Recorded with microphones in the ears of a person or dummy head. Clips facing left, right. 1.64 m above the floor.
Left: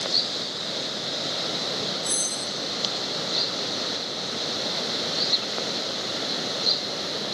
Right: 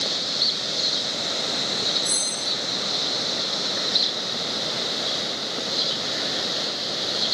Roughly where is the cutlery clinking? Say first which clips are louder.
Even; centre.